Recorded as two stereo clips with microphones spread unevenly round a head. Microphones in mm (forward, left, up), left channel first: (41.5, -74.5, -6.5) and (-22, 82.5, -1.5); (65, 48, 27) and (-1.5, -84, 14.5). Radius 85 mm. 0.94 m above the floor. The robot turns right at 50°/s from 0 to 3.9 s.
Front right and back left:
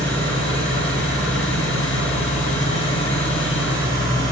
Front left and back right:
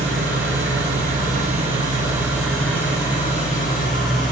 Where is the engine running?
150° right, 3 m; by 4.3 s 45° left, 3 m.